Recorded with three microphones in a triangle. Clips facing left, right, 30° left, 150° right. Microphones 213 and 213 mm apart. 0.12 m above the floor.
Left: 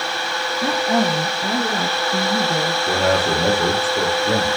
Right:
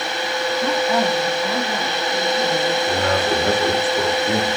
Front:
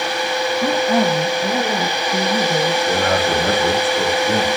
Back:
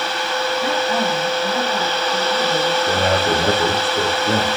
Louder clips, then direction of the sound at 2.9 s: Left 1 dB, even; 150° left.